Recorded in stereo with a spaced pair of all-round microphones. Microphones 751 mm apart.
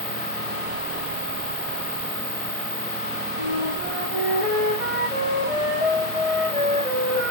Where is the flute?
45° left (ahead or behind), 8.5 m.